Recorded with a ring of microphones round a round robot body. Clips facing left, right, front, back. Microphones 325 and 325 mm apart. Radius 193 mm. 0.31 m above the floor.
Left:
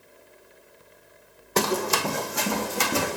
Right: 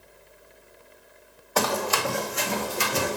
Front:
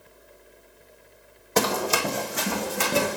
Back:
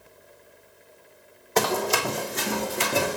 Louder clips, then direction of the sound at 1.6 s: Left 2 dB, even; 25° left.